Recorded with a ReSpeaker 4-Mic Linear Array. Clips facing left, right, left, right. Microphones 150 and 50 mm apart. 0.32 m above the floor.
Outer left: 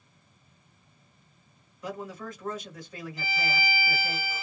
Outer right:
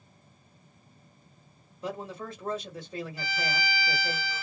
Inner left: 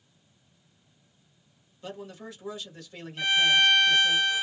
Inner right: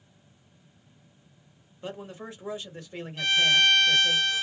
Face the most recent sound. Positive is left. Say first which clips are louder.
# outer left 4 dB, even
turn(degrees=20)  # may be behind; listen again after turning